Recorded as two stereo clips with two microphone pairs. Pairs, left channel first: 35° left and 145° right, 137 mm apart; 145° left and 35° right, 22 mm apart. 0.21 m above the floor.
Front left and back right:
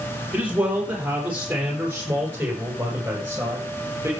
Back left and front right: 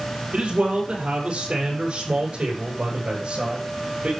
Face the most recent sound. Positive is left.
turn(degrees=-70)